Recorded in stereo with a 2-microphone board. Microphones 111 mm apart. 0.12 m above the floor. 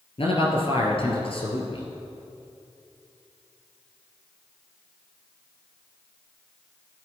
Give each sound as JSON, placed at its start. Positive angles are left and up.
{"t": 0.2, "sound": "a man speaking", "side_deg": 55, "distance_m": 2.5}